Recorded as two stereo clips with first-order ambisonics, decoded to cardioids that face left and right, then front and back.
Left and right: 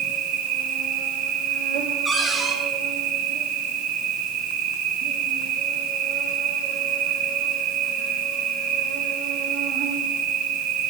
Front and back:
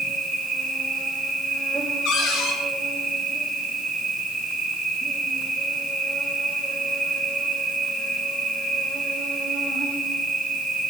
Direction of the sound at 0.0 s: 100° right.